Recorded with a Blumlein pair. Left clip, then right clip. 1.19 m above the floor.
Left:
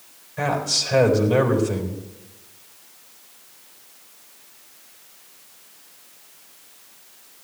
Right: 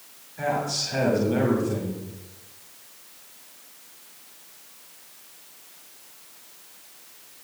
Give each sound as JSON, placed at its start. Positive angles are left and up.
{"t": 0.4, "sound": "a man speaking", "azimuth_deg": 35, "distance_m": 4.0}